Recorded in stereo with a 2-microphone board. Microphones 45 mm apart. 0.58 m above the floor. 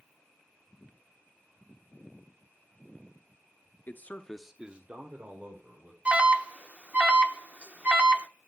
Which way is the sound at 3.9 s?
45° left (ahead or behind).